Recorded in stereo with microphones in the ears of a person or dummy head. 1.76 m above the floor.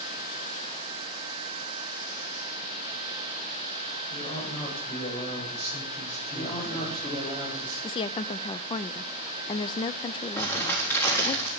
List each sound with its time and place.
4.1 s a man speaking: 30° left (ahead or behind), 10 m; by 7.3 s 35° left (ahead or behind), 8 m
6.3 s a man speaking: 25° left (ahead or behind), 4.5 m
7.8 s a woman speaking: 30° left (ahead or behind), 0.5 m
10.4 s crumpling: 15° left (ahead or behind), 3.5 m